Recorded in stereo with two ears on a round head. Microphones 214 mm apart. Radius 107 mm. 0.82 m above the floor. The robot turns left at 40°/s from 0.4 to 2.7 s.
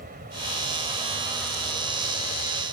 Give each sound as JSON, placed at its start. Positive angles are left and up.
{"t": 0.0, "sound": "an aircraft", "azimuth_deg": -140}